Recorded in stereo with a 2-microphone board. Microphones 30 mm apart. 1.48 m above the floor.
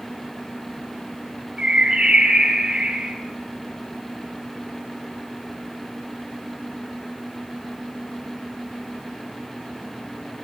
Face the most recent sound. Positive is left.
turn(degrees=-30)  # may be behind; listen again after turning